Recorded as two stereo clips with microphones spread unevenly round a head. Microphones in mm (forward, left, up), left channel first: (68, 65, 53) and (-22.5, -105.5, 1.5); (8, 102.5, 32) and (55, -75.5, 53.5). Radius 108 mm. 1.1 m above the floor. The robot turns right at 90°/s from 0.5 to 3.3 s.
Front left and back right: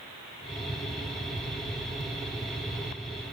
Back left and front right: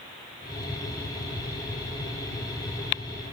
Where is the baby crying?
No baby crying in this recording.